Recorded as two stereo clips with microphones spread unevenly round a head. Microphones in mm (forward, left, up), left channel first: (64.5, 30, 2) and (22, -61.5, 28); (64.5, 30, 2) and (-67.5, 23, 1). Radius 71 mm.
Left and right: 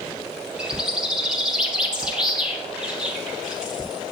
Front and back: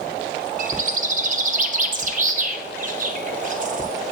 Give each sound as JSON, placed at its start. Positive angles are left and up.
{"t": 0.6, "sound": "a bird", "azimuth_deg": 155, "distance_m": 1.0}